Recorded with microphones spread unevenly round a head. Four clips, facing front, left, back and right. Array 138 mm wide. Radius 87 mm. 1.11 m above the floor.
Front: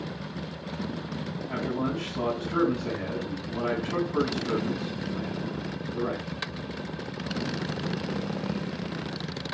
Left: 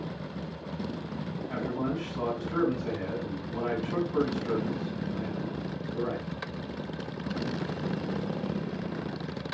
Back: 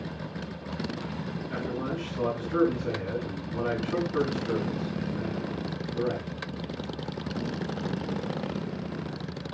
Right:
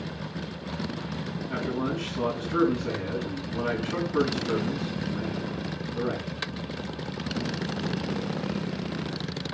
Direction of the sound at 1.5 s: 10° left.